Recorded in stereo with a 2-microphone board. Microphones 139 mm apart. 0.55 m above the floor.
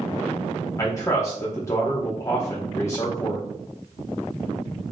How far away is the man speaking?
About 0.8 m.